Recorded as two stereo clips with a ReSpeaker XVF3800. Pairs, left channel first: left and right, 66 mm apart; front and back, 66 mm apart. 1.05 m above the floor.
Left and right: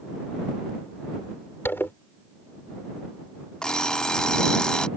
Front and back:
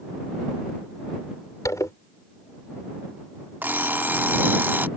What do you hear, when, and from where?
1.6 s a zipper: 35° left
3.6 s an alarm clock: 160° left